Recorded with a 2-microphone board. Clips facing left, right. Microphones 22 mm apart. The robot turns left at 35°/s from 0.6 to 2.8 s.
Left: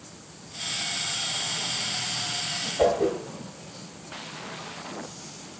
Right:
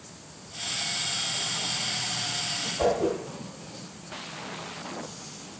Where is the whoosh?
60° left (ahead or behind), 1.2 m.